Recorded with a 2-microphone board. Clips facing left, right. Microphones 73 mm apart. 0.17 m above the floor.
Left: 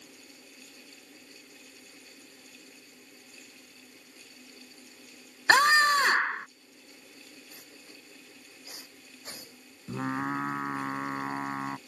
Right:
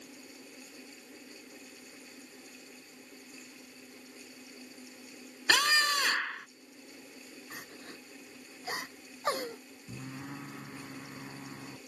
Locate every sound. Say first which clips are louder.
5.5 s a scream: left 7 dB; 40° left (ahead or behind)
7.5 s crying: right 5 dB; 75° right (ahead or behind)
9.9 s singing: left 12 dB; 70° left (ahead or behind)